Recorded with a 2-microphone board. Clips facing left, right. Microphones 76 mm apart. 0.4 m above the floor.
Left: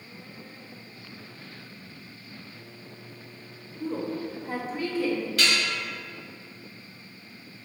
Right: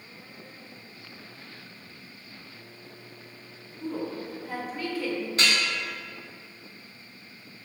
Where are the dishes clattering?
35° right (ahead or behind), 1.6 m.